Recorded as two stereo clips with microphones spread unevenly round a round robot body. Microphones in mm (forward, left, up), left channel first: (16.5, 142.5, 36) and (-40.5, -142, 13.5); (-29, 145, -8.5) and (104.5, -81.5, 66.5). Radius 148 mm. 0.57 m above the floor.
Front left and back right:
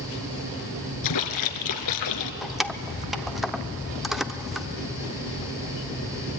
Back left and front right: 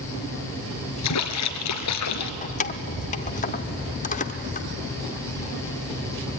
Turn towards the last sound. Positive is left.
turn(degrees=170)